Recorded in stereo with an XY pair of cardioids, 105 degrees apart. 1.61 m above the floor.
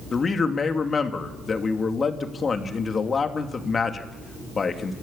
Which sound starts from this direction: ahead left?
A man speaking, at 0.1 s.